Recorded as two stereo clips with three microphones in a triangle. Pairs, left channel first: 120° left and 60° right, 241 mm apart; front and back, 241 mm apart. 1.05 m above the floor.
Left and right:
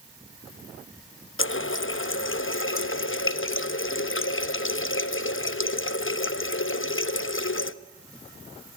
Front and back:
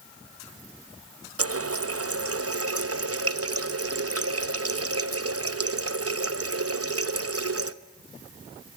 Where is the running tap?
155° left, 0.9 m.